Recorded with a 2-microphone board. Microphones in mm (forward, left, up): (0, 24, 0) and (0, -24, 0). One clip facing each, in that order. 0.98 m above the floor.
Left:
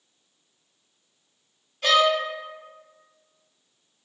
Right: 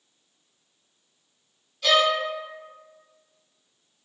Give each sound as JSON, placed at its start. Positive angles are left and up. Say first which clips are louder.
{"t": 1.8, "sound": "a violin", "louder": "left 1 dB", "side_deg": 40, "distance_m": 1.3}